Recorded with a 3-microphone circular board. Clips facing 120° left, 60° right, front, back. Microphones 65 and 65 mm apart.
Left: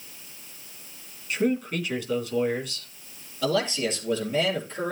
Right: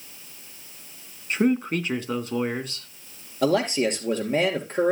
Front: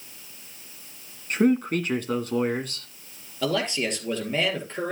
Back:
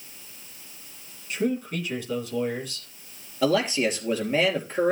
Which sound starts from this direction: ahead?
A man speaking, at 1.3 s.